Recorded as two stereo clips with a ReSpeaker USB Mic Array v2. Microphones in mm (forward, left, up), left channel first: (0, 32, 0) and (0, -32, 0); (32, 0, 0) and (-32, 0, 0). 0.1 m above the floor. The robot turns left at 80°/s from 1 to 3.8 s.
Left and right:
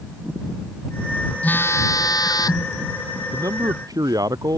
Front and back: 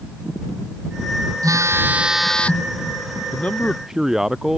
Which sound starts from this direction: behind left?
A phone buzzing, at 1.4 s.